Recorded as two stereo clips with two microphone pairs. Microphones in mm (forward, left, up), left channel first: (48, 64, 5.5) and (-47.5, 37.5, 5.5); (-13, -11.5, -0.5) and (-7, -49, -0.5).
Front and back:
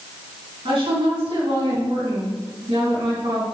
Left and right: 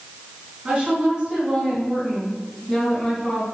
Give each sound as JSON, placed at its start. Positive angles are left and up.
{"t": 0.7, "sound": "a woman speaking", "azimuth_deg": -145, "distance_m": 3.5}